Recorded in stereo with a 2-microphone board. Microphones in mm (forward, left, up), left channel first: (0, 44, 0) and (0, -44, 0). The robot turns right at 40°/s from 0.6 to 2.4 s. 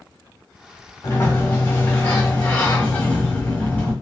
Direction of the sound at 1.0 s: 95° left.